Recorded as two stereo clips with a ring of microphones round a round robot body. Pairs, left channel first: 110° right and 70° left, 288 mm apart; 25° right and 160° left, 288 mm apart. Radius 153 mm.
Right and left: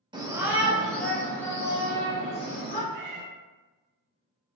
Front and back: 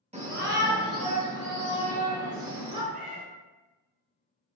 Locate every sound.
0.1 s a shout: 120° left, 0.9 m; by 2.8 s 175° left, 2.5 m
2.9 s a cat meowing: 95° left, 1.0 m